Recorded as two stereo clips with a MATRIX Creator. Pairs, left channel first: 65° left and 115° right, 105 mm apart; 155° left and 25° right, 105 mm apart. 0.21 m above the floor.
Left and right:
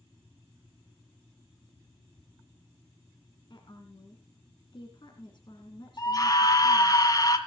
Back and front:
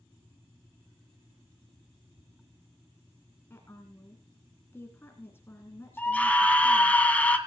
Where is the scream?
90° left, 1.8 m.